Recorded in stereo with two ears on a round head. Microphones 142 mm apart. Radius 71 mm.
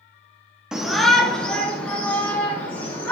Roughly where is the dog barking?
I don't hear a dog barking.